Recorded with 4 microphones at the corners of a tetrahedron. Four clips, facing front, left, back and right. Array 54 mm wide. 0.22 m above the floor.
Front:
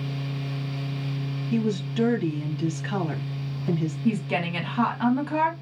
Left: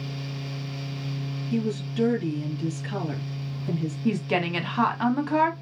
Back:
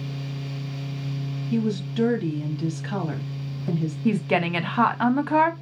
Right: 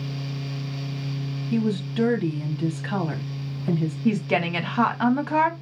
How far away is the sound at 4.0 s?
About 1.1 m.